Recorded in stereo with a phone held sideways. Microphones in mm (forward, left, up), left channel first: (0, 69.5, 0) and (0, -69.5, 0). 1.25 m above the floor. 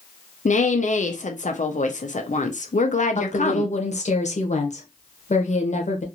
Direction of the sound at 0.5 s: 60° left (ahead or behind).